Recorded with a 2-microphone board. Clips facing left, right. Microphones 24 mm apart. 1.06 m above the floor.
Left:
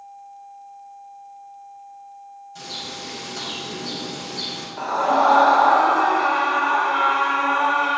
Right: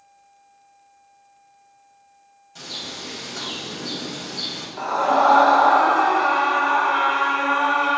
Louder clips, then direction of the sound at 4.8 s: Even; 5° right (ahead or behind).